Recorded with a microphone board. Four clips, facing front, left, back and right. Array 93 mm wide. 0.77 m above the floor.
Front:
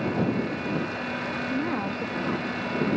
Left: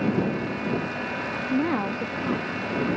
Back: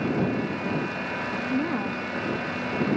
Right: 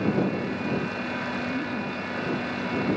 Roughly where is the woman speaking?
Behind left.